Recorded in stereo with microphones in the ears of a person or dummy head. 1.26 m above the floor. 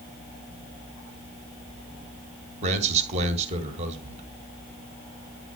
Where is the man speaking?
40° right (ahead or behind), 1.8 m.